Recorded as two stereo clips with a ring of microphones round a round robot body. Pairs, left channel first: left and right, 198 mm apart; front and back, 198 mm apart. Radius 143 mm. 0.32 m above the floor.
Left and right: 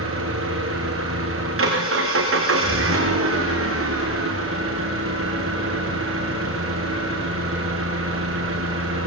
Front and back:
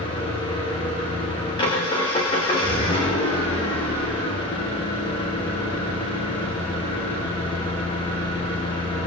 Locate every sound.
0.0 s an engine running: 75° right, 6 m